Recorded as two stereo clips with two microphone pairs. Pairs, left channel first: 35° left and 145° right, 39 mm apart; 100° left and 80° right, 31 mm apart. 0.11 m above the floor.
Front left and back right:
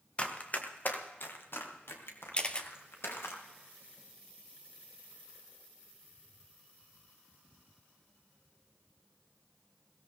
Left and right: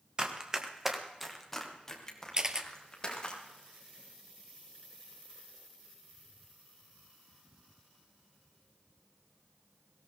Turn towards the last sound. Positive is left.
turn(degrees=-20)